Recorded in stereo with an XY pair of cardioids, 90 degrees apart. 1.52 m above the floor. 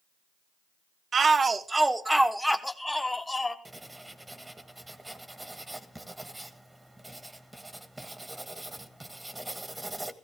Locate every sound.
1.1 s a shout: 45° right, 1.1 m; by 3.5 s 20° left, 2.0 m
3.6 s writing: 15° right, 1.5 m